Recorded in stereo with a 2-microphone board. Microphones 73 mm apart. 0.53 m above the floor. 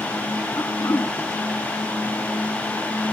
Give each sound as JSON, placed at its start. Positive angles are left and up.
{"t": 0.6, "sound": "throat clearing", "side_deg": 55, "distance_m": 2.5}